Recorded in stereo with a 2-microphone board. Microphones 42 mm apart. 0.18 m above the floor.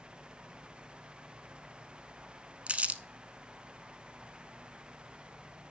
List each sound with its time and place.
2.7 s crumpling: 30° right (ahead or behind), 0.6 m